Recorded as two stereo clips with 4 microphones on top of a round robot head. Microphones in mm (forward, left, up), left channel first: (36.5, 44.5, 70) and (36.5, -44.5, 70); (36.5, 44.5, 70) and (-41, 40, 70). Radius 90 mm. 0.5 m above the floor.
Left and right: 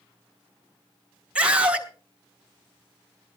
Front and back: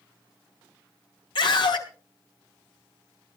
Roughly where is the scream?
Ahead.